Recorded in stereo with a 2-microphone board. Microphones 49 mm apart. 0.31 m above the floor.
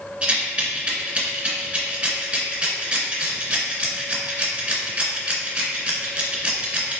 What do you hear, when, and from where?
0.2 s a rattle: 25° right (ahead or behind), 0.9 m